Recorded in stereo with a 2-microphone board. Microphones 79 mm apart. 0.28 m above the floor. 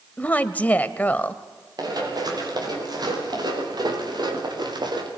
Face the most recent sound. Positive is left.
turn(degrees=-65)  # may be behind; listen again after turning